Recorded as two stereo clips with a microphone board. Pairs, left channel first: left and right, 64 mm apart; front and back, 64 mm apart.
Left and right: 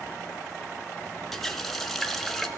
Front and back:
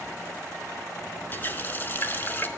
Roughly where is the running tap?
Ahead.